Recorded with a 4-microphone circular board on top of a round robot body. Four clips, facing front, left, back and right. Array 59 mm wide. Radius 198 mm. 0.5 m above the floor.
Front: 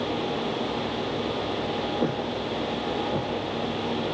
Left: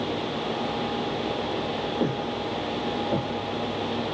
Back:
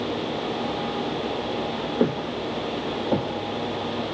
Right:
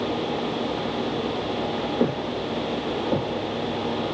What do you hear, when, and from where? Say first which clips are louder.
2.0 s footsteps: right 2 dB, back 3 dB; 160° right, 6.5 m; by 4.1 s 165° right, 7.5 m